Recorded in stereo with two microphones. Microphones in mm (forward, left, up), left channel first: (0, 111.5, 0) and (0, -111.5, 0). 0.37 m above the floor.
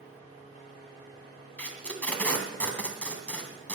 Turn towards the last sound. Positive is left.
turn(degrees=5)  # may be behind; listen again after turning